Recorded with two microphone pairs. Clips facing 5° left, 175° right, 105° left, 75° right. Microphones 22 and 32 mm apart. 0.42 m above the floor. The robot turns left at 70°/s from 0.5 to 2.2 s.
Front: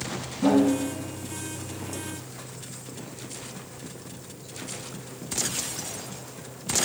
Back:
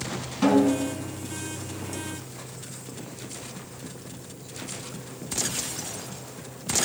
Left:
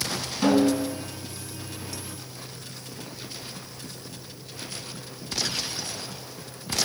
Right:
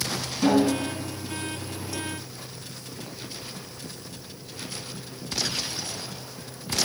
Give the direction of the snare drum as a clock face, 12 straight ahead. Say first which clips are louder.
Back 1 dB, left 1 dB; 6 o'clock.